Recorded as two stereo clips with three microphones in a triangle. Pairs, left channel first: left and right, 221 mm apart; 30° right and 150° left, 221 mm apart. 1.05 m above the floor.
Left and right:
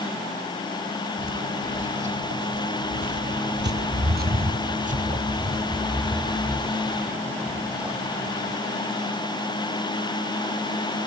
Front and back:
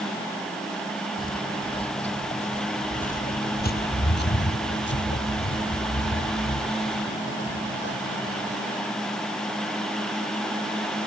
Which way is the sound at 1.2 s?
100° right.